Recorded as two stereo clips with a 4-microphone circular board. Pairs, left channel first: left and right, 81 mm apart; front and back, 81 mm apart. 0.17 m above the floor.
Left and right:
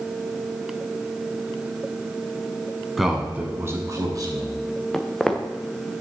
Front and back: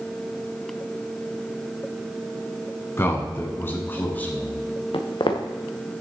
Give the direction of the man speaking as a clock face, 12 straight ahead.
12 o'clock.